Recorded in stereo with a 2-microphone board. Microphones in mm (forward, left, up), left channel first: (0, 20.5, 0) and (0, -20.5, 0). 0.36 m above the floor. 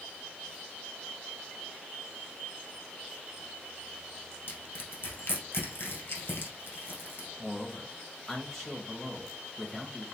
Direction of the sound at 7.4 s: 5° left (ahead or behind).